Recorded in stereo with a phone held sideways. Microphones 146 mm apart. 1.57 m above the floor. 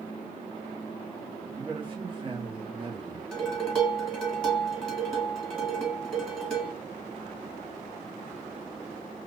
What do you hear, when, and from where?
1.6 s a man speaking: 35° right (ahead or behind), 1.1 m
3.3 s dishes clattering: 5° left (ahead or behind), 1.7 m